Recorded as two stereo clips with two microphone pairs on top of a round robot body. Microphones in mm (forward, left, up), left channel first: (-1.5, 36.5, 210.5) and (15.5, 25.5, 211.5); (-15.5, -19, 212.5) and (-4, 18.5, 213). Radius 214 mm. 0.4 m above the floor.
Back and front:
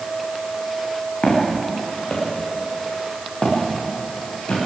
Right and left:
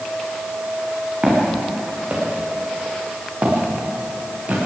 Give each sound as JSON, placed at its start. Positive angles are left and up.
{"t": 1.2, "sound": "footsteps", "azimuth_deg": 135, "distance_m": 6.5}